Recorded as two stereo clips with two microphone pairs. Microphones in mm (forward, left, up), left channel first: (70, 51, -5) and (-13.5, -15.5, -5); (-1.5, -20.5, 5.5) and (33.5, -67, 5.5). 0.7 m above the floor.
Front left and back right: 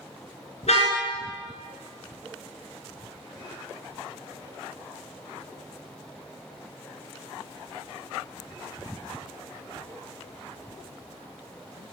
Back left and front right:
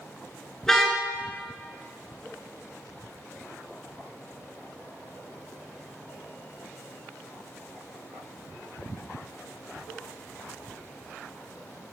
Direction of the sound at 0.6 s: 45° left.